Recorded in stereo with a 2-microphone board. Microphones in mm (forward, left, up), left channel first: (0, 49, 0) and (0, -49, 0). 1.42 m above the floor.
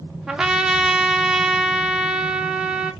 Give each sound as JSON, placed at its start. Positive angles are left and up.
{"t": 0.3, "sound": "a trumpet", "side_deg": -5, "distance_m": 0.6}